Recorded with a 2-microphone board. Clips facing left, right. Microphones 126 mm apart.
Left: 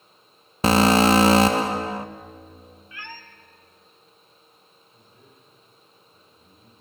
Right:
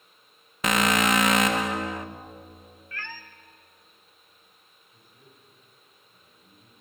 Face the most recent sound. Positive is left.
turn(degrees=-10)  # may be behind; listen again after turning